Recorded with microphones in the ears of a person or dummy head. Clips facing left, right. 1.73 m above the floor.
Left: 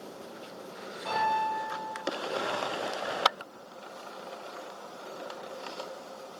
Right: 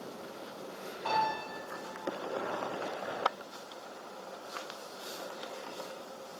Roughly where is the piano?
Right.